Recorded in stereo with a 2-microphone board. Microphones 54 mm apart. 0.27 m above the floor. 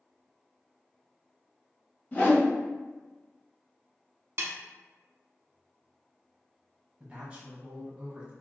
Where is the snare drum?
55° right (ahead or behind), 0.8 m.